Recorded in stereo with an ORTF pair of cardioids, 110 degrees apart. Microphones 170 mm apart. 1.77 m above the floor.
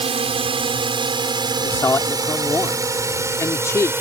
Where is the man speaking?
15° left.